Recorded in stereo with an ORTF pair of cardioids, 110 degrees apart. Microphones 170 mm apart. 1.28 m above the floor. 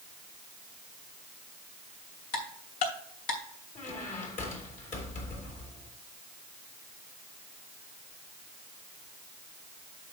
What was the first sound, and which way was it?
Ticking, 65° left.